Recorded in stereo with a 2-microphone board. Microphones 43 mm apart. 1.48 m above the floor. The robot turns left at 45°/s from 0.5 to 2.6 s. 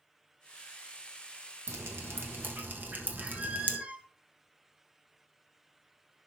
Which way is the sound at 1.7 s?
80° right.